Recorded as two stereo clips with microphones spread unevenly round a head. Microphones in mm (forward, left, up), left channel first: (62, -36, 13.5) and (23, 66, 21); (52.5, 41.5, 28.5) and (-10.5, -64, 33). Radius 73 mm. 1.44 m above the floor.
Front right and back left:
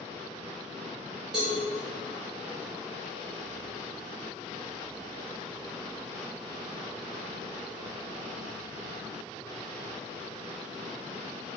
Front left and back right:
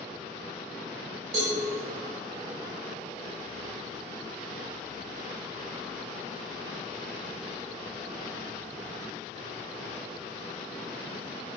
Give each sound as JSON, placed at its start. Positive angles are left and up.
{"t": 1.3, "sound": "a cowbell", "azimuth_deg": -165, "distance_m": 3.0}